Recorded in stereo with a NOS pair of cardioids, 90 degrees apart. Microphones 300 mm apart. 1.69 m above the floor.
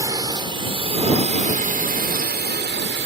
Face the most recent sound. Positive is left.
turn(degrees=-40)